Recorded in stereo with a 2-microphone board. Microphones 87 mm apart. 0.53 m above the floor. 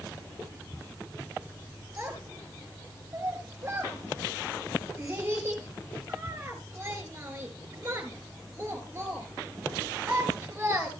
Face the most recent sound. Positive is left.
turn(degrees=-30)  # may be behind; listen again after turning